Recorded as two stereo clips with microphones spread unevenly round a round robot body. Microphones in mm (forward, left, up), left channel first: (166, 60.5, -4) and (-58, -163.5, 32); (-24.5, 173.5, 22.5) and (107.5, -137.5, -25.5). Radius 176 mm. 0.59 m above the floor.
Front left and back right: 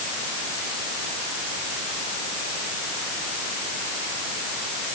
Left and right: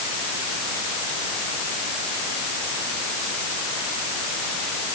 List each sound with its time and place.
Only background noise.